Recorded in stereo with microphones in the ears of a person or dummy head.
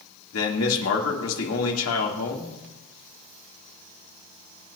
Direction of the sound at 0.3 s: 85° left.